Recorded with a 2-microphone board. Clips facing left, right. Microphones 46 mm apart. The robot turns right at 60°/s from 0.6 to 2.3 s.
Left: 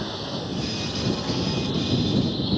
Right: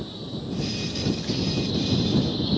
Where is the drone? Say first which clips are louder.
Left 4 dB; 75° left; by 2.6 s 175° left.